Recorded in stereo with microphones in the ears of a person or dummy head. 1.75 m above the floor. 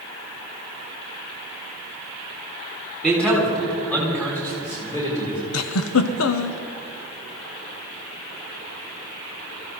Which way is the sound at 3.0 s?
5° left (ahead or behind).